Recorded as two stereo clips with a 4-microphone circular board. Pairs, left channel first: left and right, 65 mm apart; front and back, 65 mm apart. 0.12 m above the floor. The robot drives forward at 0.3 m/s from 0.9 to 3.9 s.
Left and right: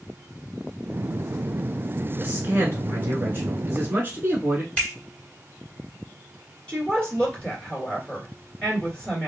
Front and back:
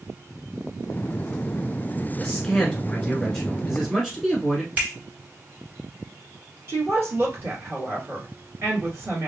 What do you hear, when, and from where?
2.2 s a man speaking: 70° right, 1.9 m; by 4.7 s 100° right, 1.8 m
4.8 s a finger snap: 145° left, 1.6 m
6.7 s a woman speaking: 160° left, 1.9 m